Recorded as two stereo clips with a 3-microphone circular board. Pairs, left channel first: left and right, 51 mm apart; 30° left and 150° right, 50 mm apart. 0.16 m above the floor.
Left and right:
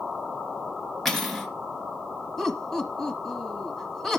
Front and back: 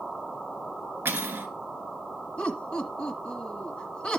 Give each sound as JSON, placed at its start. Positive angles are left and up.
{"t": 1.1, "sound": "cutlery clinking", "azimuth_deg": 175, "distance_m": 1.7}
{"t": 2.4, "sound": "laughter", "azimuth_deg": 15, "distance_m": 1.2}